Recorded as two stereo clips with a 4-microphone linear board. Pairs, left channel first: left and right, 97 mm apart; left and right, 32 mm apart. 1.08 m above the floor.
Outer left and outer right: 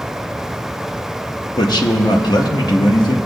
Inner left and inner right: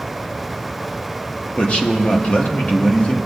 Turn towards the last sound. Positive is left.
turn(degrees=40)  # may be behind; listen again after turning